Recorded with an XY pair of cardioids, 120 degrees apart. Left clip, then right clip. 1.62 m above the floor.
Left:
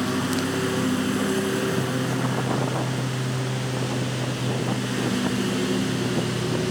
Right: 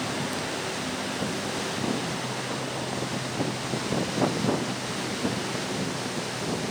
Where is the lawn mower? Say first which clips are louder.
Left 4 dB; 65° left.